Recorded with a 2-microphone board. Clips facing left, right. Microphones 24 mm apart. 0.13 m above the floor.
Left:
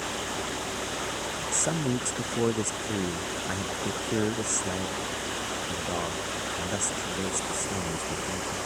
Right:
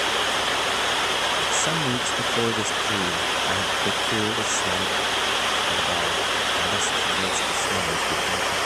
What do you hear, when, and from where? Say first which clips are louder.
0.0 s running water: right 10 dB; 75° right (ahead or behind)
1.5 s a man speaking: right 6 dB; 20° right (ahead or behind)